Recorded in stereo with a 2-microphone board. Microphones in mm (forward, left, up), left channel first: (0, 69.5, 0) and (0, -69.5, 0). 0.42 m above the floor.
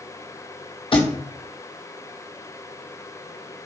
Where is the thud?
45° left (ahead or behind), 1.0 m.